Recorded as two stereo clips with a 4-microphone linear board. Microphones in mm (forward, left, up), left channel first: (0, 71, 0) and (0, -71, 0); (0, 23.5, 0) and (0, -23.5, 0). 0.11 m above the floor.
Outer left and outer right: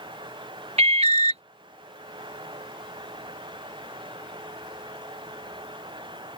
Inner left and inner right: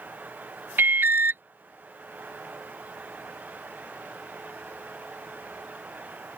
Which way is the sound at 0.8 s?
50° right (ahead or behind).